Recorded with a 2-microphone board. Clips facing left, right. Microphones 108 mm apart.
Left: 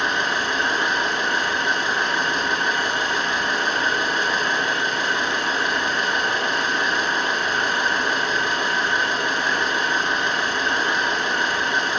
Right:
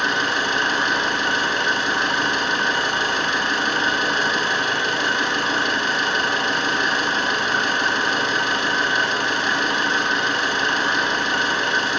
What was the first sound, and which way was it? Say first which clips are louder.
An engine running: right 1 dB; 85° right.